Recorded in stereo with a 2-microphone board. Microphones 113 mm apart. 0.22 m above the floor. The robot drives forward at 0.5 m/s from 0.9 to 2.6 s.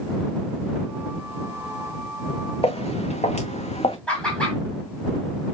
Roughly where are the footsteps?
Left.